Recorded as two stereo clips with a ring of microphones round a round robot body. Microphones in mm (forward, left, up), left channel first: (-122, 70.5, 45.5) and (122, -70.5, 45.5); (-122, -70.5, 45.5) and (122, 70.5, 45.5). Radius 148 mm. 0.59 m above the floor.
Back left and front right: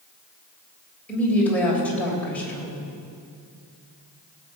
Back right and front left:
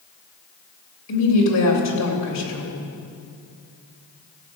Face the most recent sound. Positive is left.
turn(degrees=-125)